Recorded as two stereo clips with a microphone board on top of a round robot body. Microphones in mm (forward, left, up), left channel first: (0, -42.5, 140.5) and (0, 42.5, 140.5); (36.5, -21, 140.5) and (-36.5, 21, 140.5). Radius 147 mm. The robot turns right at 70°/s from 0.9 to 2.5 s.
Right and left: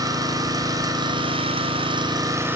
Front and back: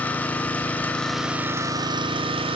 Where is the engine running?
45° left, 1.0 m; by 2.5 s 155° left, 1.0 m.